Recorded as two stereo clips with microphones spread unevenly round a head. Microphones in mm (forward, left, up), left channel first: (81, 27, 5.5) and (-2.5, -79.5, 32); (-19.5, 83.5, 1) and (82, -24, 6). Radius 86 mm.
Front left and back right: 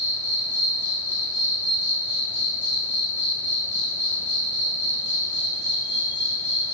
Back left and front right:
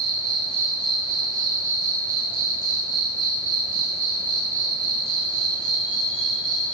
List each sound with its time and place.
0.0 s an insect: 95° right, 4.5 m